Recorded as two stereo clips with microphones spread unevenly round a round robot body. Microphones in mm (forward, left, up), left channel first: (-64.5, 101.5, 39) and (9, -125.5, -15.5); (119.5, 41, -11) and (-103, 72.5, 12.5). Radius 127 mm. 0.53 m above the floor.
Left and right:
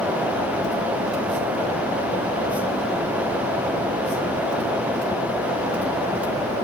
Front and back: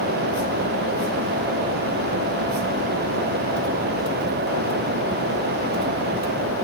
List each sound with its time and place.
Only background noise.